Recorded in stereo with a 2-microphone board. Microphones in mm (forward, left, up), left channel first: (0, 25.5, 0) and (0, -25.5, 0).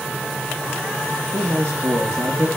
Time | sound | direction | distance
1.3 | a man speaking | 65° right (ahead or behind) | 3.5 m